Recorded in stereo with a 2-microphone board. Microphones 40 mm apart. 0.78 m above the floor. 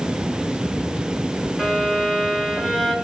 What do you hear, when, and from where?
1.6 s a violin: 10° left (ahead or behind), 2.5 m